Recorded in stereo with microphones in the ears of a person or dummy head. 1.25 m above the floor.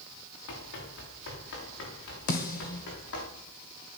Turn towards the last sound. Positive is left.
turn(degrees=40)  # may be behind; listen again after turning